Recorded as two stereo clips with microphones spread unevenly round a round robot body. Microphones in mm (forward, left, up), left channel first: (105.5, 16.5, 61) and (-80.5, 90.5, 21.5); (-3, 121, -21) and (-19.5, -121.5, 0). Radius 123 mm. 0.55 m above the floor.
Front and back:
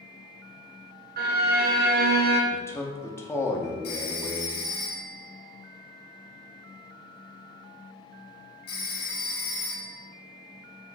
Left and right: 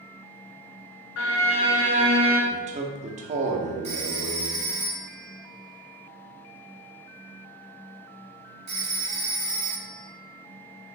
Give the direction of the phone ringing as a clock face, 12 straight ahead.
1 o'clock.